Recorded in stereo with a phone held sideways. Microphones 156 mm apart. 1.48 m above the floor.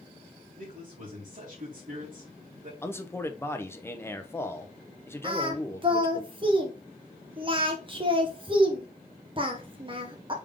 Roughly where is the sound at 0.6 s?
Right.